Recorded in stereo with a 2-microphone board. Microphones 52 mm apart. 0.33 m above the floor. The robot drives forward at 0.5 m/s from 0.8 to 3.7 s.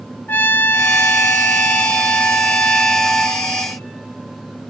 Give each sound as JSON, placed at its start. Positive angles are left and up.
{"t": 0.3, "sound": "a trumpet", "side_deg": 45, "distance_m": 0.6}